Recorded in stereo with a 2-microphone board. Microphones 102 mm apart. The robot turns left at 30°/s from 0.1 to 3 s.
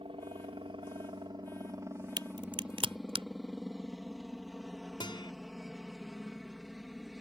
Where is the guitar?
50° left (ahead or behind).